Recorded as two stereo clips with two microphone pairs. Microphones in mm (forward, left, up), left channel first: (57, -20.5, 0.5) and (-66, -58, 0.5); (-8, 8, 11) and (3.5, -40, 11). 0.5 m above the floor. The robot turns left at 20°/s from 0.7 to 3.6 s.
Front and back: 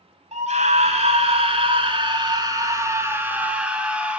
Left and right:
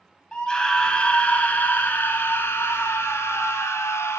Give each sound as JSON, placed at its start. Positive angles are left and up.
{"t": 0.3, "sound": "a scream", "azimuth_deg": 175, "distance_m": 3.5}